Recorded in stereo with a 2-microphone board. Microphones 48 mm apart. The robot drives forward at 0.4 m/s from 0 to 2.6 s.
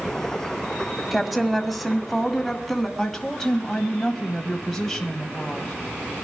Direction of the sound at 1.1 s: Centre (ahead or behind).